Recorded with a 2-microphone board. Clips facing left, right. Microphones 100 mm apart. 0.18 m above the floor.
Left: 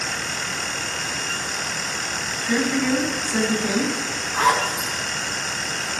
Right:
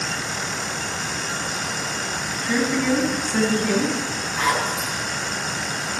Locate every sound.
2.4 s a woman speaking: 10° left (ahead or behind), 1.8 m
4.3 s a zipper: 50° left (ahead or behind), 1.9 m